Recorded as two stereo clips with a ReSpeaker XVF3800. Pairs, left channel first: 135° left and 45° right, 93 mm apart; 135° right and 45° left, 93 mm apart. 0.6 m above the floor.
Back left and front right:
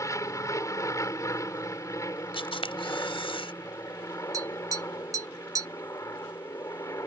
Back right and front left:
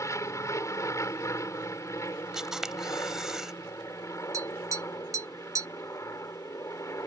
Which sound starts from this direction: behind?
An aircraft, at 0.0 s.